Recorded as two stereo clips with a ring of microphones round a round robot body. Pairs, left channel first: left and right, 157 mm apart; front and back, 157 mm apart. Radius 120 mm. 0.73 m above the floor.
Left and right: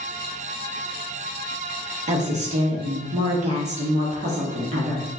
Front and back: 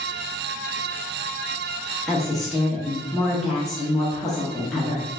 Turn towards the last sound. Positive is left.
turn(degrees=-85)